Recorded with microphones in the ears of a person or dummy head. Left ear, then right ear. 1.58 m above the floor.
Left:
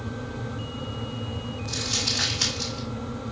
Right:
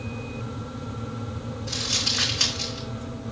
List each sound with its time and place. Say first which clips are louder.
1.7 s crumpling: right 2 dB; 55° right (ahead or behind), 4 m